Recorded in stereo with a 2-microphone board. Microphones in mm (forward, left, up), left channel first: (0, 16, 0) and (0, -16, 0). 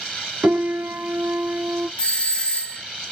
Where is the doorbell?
30° left (ahead or behind), 0.9 m.